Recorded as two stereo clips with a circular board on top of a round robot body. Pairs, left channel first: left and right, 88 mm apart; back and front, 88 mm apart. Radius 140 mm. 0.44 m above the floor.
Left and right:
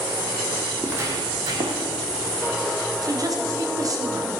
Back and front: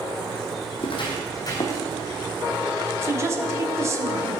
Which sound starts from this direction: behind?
Footsteps, at 0.8 s.